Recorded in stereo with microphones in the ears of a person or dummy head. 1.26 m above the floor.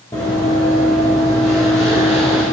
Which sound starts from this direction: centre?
Running footsteps, at 0.1 s.